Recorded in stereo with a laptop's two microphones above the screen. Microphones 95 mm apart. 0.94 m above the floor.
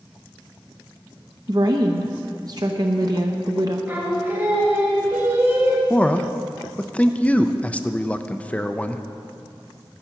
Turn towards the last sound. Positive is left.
turn(degrees=15)  # may be behind; listen again after turning